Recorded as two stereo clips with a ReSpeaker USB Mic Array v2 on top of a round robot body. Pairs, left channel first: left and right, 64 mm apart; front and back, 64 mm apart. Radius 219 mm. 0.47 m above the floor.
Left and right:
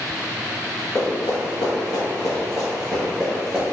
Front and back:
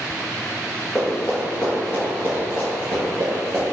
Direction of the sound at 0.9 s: 65° left.